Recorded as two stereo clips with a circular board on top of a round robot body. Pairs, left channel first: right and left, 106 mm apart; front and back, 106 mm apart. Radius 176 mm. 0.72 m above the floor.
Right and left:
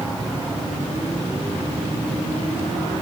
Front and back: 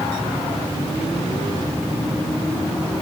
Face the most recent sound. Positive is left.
No sound to turn to.